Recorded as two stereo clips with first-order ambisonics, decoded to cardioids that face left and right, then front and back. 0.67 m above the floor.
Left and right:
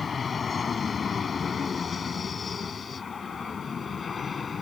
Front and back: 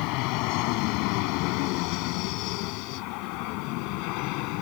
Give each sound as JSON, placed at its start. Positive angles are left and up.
{"t": 0.0, "sound": "an aircraft", "azimuth_deg": 20}